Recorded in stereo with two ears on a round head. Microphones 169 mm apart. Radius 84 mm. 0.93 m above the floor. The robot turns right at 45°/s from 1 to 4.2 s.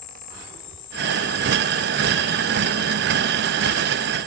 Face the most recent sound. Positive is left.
turn(degrees=-85)